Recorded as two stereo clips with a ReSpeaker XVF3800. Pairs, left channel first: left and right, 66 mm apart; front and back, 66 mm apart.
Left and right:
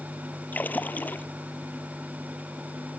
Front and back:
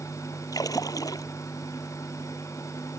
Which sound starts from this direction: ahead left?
A splash, at 0.5 s.